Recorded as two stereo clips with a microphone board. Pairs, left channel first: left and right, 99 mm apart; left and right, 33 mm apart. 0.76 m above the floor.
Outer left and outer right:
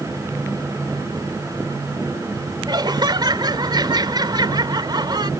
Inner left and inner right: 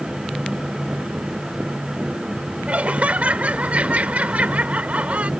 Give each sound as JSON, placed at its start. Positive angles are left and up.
{"t": 2.7, "sound": "laughter", "side_deg": -45}